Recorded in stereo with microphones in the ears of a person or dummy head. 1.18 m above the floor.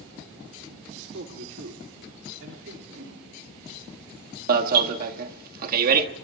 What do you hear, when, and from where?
0.9 s a man speaking: 65° right (ahead or behind), 4 m; by 2.8 s 80° right, 3 m
2.9 s a whoosh: 65° right (ahead or behind), 9 m
4.5 s an alarm: 50° right (ahead or behind), 1.7 m